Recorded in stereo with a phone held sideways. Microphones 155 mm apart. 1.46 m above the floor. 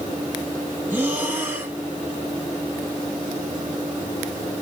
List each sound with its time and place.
0.9 s breathing: 15° right (ahead or behind), 1.0 m